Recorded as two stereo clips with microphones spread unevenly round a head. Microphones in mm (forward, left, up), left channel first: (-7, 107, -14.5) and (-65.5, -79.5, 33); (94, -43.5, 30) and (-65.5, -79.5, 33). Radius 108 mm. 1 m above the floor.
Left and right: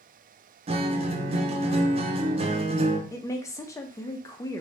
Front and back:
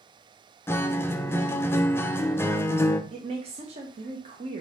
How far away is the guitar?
About 0.5 m.